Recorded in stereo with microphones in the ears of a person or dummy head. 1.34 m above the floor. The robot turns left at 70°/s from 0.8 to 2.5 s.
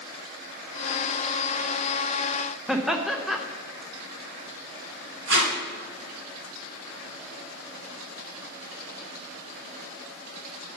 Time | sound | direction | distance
2.7 | laughter | 10° left (ahead or behind) | 0.7 m
5.3 | tape being pulled | 60° right (ahead or behind) | 1.6 m